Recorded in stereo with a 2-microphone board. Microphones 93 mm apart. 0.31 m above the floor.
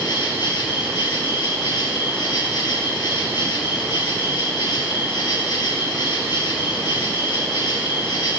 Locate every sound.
0.0 s an insect: 50° left (ahead or behind), 4 m